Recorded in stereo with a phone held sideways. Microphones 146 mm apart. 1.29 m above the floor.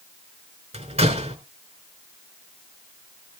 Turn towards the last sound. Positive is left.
turn(degrees=-45)  # may be behind; listen again after turning